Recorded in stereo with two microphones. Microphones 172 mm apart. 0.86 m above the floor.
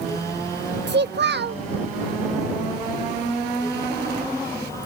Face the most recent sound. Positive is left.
turn(degrees=-80)